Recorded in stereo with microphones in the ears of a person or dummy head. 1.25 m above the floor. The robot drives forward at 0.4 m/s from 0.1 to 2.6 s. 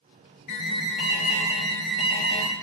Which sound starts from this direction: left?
An alarm, at 0.5 s.